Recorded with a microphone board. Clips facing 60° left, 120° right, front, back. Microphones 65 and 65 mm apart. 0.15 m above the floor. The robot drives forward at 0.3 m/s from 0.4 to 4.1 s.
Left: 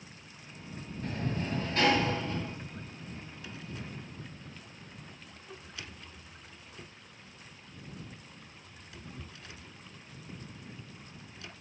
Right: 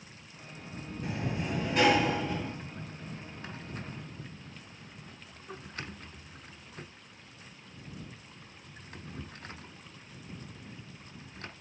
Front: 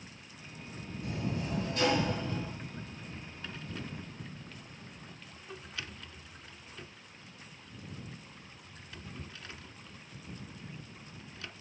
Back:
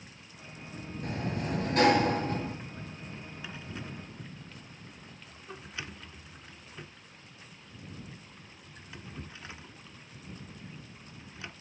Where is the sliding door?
160° left, 1.9 m; by 2.5 s 165° left, 2.5 m.